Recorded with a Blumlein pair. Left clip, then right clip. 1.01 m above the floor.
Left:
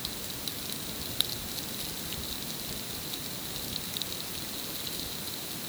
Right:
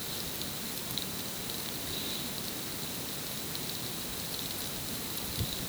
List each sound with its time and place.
Only background noise.